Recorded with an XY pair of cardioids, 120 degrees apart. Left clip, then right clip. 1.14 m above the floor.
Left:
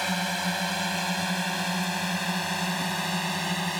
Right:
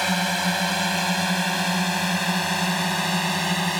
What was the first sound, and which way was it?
A drone, 30° right.